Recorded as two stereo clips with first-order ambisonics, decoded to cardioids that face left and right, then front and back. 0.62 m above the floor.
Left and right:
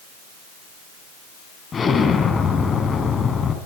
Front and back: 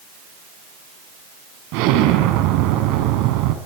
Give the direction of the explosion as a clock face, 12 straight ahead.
7 o'clock.